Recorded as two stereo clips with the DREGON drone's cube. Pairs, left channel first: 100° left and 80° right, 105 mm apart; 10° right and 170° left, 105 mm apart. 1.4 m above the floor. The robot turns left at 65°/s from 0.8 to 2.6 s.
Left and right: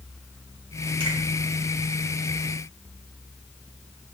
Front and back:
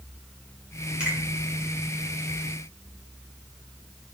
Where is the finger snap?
110° right, 1.4 m; by 1.2 s 120° right, 1.4 m.